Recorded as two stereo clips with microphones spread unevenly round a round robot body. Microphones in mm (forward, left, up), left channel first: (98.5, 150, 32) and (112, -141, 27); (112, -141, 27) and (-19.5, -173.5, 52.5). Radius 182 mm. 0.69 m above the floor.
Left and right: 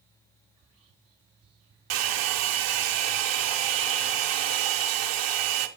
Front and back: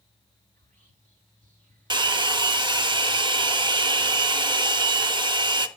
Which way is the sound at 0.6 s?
160° right.